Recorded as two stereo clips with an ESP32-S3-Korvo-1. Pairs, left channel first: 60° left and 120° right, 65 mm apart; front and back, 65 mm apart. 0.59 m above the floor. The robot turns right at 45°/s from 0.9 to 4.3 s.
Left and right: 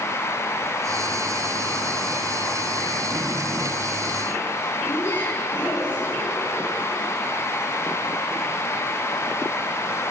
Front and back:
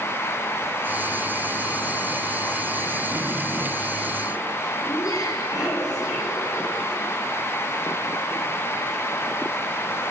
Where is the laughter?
20° left, 4.5 m.